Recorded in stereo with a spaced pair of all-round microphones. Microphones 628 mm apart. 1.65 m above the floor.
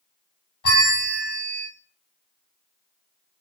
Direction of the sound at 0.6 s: 75° left (ahead or behind).